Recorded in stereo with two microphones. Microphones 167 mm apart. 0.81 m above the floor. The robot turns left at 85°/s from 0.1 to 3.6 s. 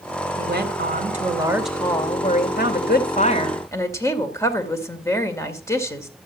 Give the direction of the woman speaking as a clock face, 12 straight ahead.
2 o'clock.